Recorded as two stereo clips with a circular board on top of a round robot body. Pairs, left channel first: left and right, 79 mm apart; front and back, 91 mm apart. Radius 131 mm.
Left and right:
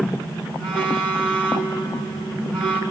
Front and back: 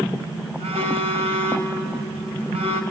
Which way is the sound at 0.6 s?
165° left.